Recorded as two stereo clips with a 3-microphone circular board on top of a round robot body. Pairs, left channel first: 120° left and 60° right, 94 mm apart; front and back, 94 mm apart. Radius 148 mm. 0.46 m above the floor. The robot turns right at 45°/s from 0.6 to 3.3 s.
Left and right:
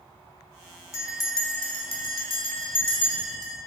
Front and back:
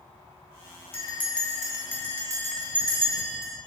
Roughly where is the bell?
Ahead left.